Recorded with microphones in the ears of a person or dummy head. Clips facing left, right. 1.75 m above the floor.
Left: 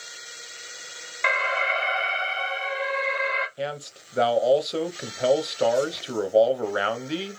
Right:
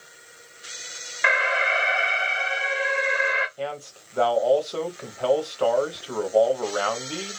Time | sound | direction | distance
1.2 | an alarm | 5° right (ahead or behind) | 1.2 m
3.6 | a man speaking | 30° left (ahead or behind) | 0.8 m